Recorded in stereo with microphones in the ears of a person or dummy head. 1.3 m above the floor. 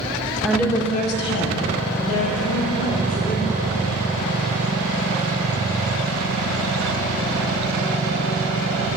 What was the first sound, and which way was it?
A woman speaking, 5° right (ahead or behind).